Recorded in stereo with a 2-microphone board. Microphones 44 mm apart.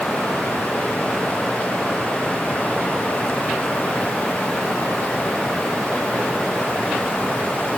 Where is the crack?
No crack in this recording.